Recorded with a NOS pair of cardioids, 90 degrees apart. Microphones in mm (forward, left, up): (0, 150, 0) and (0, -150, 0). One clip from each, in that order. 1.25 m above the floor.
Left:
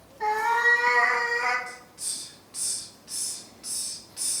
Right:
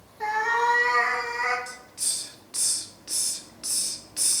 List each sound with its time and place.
0.2 s a cat meowing: 20° right, 1.3 m; by 1.6 s 15° left, 1.7 m
1.7 s a hiss: 40° right, 0.6 m